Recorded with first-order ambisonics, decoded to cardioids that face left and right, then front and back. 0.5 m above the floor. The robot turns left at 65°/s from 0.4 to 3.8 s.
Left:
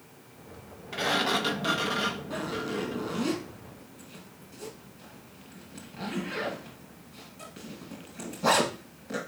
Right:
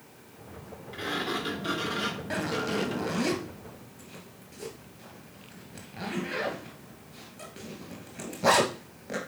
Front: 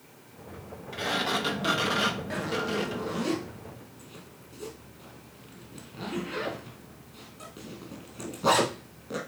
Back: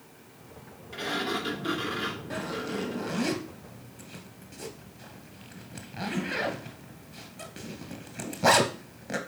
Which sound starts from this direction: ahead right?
A zipper, at 2.3 s.